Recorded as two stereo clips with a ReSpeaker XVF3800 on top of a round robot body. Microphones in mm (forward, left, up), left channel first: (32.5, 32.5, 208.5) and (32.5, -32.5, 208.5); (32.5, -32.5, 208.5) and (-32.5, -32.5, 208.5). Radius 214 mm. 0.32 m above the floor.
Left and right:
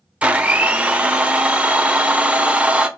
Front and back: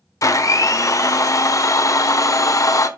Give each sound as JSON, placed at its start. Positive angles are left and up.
{"t": 0.2, "sound": "a blender", "azimuth_deg": -20, "distance_m": 1.6}